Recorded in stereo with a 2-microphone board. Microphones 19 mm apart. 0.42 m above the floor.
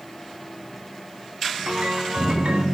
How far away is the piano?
About 4 m.